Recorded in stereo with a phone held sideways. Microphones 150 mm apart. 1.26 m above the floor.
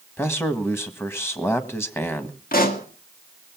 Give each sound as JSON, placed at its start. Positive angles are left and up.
{"t": 0.2, "sound": "a man speaking", "side_deg": 15, "distance_m": 1.5}
{"t": 2.5, "sound": "a pop", "side_deg": 75, "distance_m": 1.8}